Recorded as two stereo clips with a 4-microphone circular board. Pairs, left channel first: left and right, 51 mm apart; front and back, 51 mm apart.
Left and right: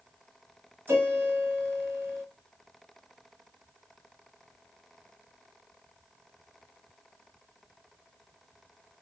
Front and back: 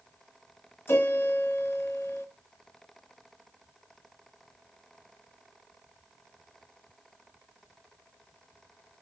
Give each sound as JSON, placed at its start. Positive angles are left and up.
{"t": 0.9, "sound": "a piano", "azimuth_deg": -45, "distance_m": 5.5}